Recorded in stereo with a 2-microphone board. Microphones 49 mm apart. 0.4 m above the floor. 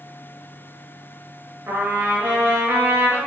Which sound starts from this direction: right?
A trumpet, at 1.7 s.